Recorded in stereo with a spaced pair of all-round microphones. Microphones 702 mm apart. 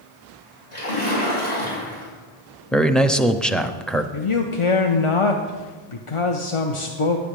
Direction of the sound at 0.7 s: 60° left (ahead or behind).